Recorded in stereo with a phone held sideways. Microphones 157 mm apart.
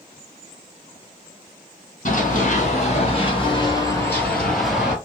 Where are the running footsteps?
55° left (ahead or behind), 1.9 m; by 5.0 s 5° right (ahead or behind), 1.4 m.